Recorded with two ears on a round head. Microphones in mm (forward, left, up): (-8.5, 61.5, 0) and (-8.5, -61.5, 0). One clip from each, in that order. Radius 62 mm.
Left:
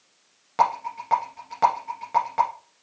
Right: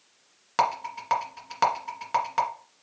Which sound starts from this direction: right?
A rattle, at 0.6 s.